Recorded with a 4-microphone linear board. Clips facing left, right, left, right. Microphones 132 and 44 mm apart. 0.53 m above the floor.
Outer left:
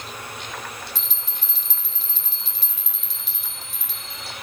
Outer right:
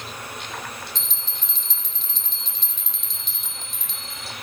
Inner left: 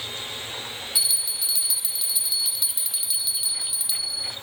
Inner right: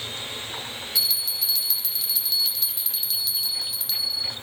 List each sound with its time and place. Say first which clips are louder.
0.9 s a bell: even, inner right 3 dB; 10° left (ahead or behind), 1.0 m